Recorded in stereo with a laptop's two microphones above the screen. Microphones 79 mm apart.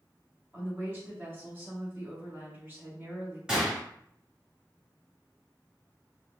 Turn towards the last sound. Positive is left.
turn(degrees=-10)  # may be behind; listen again after turning